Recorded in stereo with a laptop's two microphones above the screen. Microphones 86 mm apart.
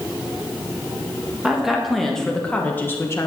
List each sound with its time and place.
1.4 s a woman speaking: 5° right (ahead or behind), 1.6 m; by 3.3 s 35° left (ahead or behind), 1.1 m